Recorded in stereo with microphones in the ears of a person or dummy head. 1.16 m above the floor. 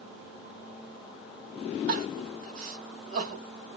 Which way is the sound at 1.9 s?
65° right (ahead or behind).